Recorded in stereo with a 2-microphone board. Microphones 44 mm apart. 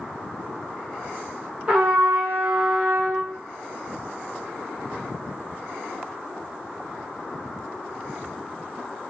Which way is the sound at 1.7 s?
30° right (ahead or behind).